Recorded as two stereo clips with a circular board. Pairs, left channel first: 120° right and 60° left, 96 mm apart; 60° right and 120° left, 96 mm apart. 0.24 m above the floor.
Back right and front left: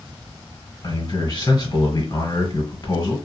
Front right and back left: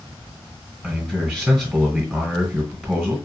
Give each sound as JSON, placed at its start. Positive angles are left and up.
{"t": 0.8, "sound": "a man speaking", "azimuth_deg": -150, "distance_m": 1.5}